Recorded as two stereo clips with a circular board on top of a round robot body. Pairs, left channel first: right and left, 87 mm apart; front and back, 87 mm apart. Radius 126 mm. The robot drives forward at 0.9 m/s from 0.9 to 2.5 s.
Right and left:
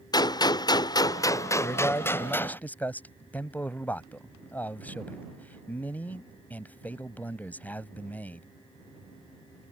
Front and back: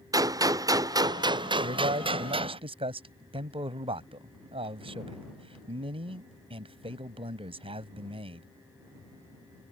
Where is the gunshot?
130° right; by 2.6 s 160° right.